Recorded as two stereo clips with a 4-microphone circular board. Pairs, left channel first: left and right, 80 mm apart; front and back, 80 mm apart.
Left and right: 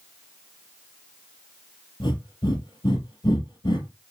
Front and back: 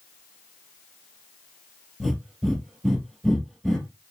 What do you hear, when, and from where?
2.0 s breathing: 90° left, 2.5 m